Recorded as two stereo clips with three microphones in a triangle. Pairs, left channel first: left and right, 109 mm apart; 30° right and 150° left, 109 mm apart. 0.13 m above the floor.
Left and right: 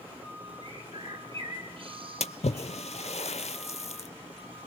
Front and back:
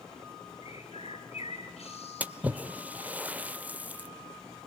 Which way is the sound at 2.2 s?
75° left.